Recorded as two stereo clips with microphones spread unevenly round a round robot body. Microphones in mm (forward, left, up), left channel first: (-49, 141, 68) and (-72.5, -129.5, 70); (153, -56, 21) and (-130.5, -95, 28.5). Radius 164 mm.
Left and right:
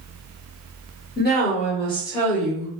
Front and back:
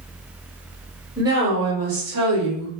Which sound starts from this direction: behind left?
A woman speaking, at 1.2 s.